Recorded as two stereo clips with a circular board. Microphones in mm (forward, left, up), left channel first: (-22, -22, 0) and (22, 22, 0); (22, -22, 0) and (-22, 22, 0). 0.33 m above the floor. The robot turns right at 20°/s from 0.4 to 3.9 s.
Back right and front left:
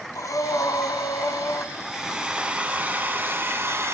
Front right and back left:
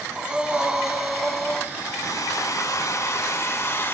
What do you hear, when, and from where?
0.1 s breathing: 150° right, 0.9 m; by 1.7 s 125° right, 0.9 m
1.8 s a hair dryer: 40° right, 1.4 m; by 4.0 s straight ahead, 1.4 m